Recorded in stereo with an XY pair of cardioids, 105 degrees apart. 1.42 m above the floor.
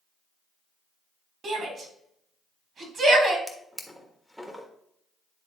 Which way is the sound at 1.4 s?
45° right.